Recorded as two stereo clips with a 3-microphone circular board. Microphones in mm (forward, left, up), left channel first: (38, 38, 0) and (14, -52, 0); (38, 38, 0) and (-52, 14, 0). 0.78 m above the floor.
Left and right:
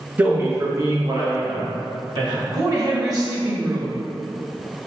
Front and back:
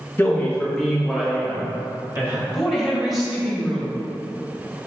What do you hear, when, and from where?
0.2 s a man speaking: 40° right, 0.9 m; by 2.4 s 115° right, 1.4 m
2.5 s a woman speaking: 80° right, 0.9 m